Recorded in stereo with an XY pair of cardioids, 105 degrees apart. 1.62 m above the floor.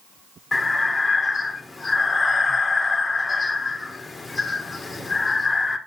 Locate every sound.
0.5 s breathing: 15° left, 1.6 m